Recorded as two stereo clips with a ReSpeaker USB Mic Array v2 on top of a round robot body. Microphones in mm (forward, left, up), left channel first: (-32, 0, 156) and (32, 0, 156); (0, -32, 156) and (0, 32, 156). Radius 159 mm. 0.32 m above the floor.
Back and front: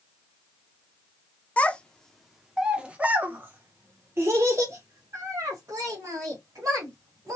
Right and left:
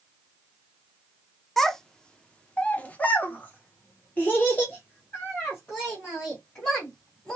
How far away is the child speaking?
About 1.0 m.